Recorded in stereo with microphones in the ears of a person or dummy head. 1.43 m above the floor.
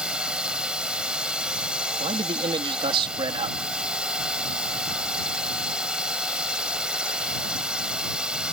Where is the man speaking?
30° right (ahead or behind).